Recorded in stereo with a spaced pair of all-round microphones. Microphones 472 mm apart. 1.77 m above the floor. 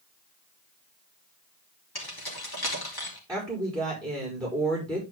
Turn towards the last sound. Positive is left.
turn(degrees=-10)  # may be behind; listen again after turning